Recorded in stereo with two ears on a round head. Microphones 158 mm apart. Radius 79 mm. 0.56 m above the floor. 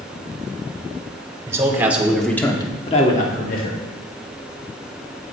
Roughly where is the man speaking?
Centre.